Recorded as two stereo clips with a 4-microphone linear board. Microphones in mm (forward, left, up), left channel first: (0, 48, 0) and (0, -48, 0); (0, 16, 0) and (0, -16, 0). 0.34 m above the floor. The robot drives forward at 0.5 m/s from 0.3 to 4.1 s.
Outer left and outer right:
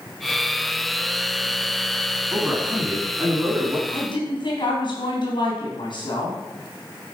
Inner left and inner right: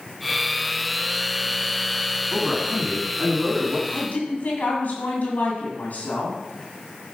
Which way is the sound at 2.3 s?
25° right (ahead or behind).